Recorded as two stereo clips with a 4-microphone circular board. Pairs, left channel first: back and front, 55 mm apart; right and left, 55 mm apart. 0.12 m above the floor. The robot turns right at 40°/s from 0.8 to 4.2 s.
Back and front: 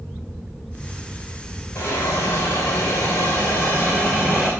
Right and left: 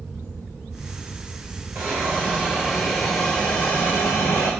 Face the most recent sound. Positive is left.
turn(degrees=-130)